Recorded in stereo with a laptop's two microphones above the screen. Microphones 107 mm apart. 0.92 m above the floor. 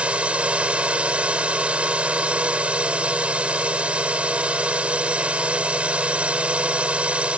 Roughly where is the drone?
Centre.